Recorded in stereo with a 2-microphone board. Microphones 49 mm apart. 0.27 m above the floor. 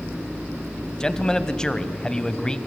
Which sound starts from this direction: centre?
A man speaking, at 1.0 s.